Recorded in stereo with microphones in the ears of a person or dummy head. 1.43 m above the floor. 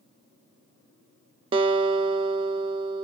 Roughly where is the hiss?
I don't hear a hiss.